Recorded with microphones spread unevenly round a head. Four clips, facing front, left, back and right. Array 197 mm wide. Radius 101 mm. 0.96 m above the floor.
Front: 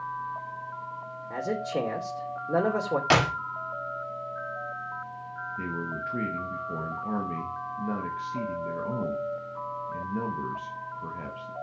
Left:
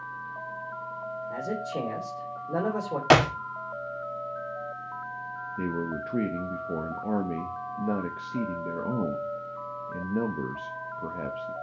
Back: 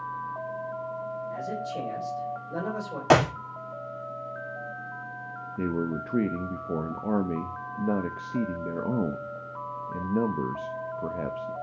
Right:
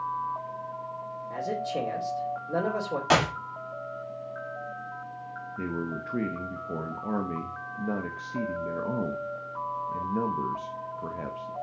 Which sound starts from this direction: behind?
A man speaking, at 5.6 s.